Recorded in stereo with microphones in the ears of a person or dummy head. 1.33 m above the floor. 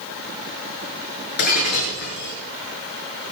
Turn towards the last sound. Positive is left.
turn(degrees=50)  # may be behind; listen again after turning